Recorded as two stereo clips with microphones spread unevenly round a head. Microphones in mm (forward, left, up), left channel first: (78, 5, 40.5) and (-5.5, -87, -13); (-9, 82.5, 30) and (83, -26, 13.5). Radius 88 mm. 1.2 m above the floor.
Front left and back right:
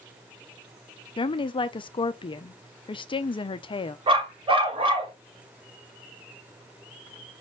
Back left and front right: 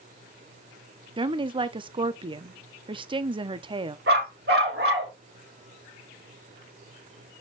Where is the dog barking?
75° right, 1.4 m.